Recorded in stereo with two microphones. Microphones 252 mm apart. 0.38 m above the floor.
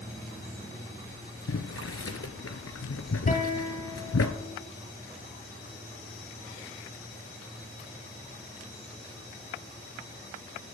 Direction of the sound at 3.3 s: 35° left (ahead or behind).